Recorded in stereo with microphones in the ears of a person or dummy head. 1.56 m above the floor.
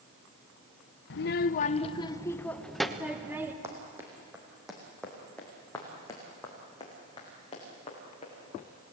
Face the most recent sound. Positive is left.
turn(degrees=30)  # may be behind; listen again after turning